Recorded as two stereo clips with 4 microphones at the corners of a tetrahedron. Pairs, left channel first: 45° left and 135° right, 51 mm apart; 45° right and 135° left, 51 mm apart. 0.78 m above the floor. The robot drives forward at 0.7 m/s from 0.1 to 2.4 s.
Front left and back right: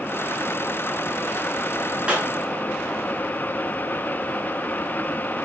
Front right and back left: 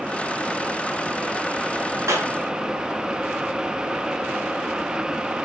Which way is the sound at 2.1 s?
160° left.